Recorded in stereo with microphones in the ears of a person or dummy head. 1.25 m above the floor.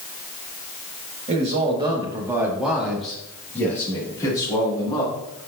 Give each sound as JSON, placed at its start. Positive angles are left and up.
{"t": 1.3, "sound": "a man speaking", "side_deg": -35, "distance_m": 1.9}